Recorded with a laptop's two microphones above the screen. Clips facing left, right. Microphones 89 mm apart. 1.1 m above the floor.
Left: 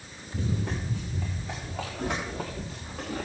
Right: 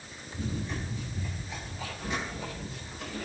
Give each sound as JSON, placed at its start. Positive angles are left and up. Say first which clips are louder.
{"t": 0.3, "sound": "running footsteps", "louder": "left 3 dB", "side_deg": 80, "distance_m": 6.5}